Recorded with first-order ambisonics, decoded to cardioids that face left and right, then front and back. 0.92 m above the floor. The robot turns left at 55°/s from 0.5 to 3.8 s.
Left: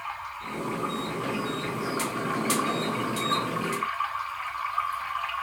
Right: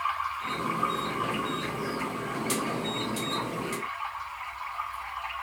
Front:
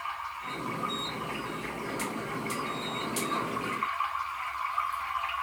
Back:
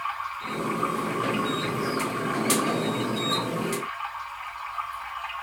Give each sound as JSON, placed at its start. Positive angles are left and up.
{"t": 0.0, "sound": "running water", "azimuth_deg": -125, "distance_m": 3.0}